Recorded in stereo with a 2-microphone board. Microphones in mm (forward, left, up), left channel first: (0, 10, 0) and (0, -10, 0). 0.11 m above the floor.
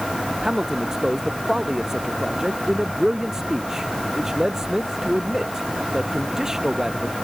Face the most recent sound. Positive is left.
turn(degrees=-25)  # may be behind; listen again after turning